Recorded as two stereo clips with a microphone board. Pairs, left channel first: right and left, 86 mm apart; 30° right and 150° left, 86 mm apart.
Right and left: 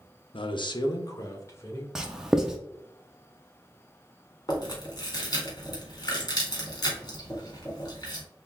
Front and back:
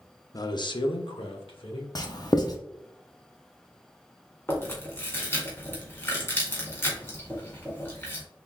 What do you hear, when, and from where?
0.3 s a man speaking: 80° right, 0.6 m; by 1.9 s 30° right, 1.4 m
1.9 s writing: 10° left, 0.7 m
4.5 s chewing: 85° right, 1.7 m